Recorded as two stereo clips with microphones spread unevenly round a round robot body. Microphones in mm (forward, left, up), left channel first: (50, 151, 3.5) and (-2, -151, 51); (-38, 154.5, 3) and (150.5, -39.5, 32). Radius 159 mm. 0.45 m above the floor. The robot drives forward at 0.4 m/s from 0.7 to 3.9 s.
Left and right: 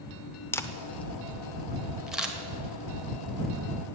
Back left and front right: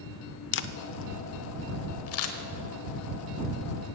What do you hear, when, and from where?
0.5 s a camera shutter: 155° left, 0.6 m; by 4.0 s 175° left, 1.7 m